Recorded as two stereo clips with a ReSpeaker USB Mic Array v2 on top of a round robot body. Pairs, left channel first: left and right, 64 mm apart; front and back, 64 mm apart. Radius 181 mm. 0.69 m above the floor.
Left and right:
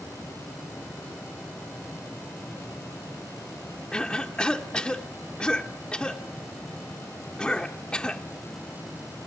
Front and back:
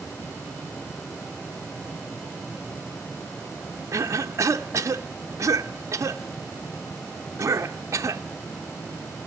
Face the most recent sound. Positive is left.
turn(degrees=160)